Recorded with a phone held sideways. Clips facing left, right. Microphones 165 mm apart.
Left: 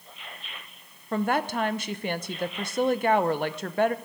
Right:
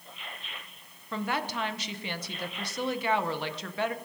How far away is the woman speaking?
About 0.7 m.